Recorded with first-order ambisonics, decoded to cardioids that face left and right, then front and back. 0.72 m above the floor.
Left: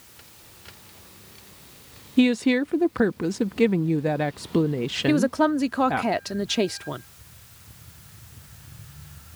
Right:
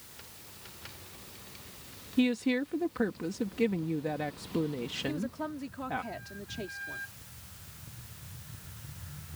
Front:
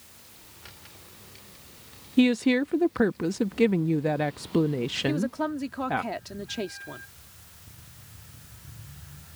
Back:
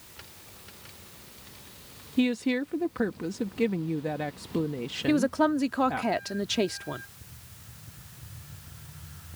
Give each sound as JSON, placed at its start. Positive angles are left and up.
{"t": 2.2, "sound": "a woman speaking", "azimuth_deg": 55}
{"t": 5.1, "sound": "a woman speaking", "azimuth_deg": 110}